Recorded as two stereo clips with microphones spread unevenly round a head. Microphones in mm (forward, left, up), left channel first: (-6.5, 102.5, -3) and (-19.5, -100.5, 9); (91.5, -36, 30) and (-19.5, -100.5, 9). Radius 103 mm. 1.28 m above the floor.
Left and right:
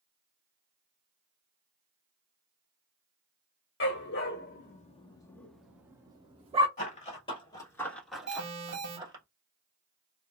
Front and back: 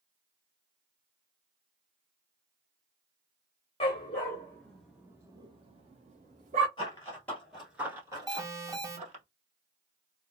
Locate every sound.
3.8 s a dog barking: 70° left, 1.1 m; by 6.7 s 145° right, 1.2 m
6.8 s running footsteps: 55° left, 1.5 m; by 9.2 s 145° right, 1.7 m
8.3 s an alarm: 85° right, 1.2 m